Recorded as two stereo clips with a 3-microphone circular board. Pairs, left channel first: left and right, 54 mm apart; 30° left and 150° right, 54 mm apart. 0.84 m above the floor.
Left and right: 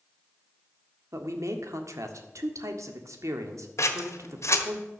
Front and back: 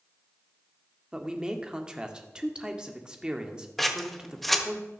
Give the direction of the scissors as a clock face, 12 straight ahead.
8 o'clock.